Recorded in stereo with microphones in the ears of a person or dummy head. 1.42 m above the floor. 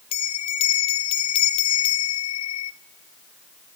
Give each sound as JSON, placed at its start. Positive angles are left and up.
{"t": 0.1, "sound": "a bell", "side_deg": 35, "distance_m": 0.5}